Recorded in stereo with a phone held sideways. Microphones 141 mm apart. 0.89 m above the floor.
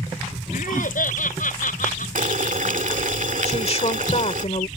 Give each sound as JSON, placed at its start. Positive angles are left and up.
{"t": 0.5, "sound": "laughter", "side_deg": 85}
{"t": 2.1, "sound": "boiling", "side_deg": -75}
{"t": 3.5, "sound": "a woman speaking", "side_deg": 55}